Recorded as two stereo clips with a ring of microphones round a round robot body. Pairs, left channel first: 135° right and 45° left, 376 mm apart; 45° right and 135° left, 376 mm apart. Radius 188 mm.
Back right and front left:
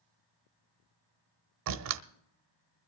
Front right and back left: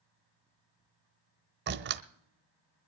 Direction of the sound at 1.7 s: 80° left.